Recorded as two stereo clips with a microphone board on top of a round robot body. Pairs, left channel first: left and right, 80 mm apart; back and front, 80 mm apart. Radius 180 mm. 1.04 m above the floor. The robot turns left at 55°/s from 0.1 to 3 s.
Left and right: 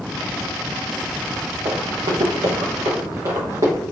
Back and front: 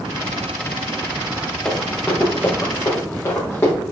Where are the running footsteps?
85° right, 3.5 m; by 3.7 s 120° right, 4 m.